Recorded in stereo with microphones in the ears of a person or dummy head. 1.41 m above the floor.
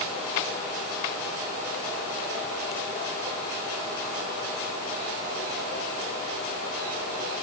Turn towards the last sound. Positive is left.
No sound to turn to.